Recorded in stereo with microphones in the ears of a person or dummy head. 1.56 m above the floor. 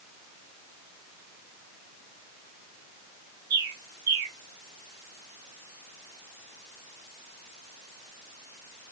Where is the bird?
15° right (ahead or behind), 2 m.